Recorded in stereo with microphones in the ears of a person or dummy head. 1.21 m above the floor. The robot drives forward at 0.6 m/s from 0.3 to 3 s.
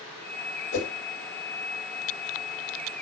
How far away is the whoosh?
About 2.5 m.